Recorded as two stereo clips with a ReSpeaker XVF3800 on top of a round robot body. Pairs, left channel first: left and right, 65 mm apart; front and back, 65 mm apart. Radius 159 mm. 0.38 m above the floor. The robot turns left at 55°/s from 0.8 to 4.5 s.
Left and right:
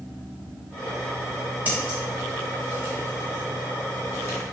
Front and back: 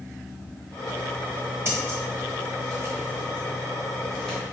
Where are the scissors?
145° right, 1.5 m; by 4.4 s 65° left, 1.5 m.